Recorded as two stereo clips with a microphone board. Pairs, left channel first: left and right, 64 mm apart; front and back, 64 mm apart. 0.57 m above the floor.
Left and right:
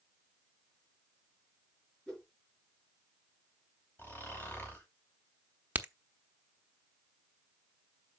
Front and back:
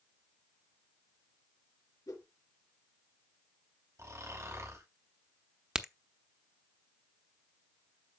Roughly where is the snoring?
Behind left.